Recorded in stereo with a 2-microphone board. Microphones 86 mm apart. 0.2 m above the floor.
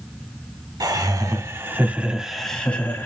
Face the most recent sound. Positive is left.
turn(degrees=30)  # may be behind; listen again after turning